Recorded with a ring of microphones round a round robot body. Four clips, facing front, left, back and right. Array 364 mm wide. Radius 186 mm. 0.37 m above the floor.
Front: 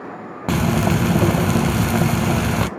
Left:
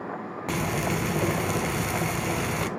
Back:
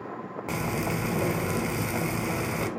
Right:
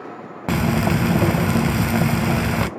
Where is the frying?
40° right, 0.7 m.